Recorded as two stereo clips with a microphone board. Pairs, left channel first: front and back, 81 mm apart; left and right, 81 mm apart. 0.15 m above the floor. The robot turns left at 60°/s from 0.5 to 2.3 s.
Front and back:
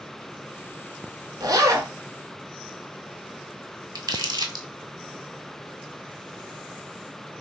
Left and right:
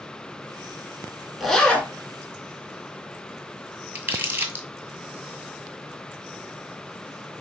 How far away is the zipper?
About 0.7 m.